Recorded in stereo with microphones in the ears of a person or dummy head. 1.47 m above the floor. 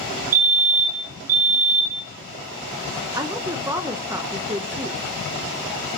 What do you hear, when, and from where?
0.3 s a fire alarm: 40° right (ahead or behind), 0.9 m
3.1 s a woman speaking: 20° right (ahead or behind), 1.0 m